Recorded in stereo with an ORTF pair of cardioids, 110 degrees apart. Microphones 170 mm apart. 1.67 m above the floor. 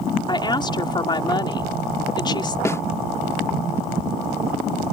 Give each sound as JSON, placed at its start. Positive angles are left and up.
{"t": 0.3, "sound": "a woman speaking", "azimuth_deg": 25}
{"t": 2.6, "sound": "a snare drum", "azimuth_deg": 15}